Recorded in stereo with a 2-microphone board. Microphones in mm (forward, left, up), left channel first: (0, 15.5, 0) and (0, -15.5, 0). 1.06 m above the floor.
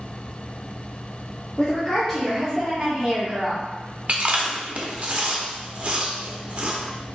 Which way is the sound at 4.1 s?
50° right (ahead or behind).